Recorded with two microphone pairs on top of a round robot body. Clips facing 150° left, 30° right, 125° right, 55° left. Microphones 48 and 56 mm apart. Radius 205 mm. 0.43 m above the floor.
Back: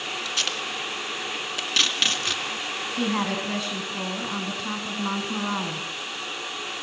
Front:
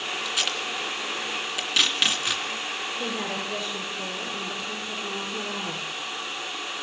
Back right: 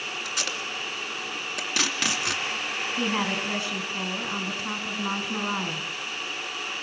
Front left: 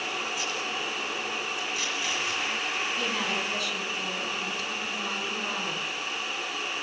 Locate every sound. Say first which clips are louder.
0.2 s tape being pulled: even, even; 115° right, 2.5 m
3.0 s a woman speaking: back 7 dB, back right 2 dB; 175° left, 6 m